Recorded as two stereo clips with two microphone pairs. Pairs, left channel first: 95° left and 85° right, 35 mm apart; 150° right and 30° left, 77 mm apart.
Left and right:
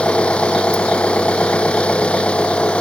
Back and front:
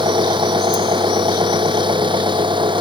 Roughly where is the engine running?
Ahead left.